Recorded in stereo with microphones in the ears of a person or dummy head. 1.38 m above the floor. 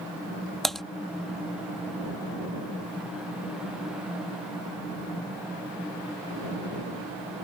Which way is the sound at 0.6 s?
5° left (ahead or behind).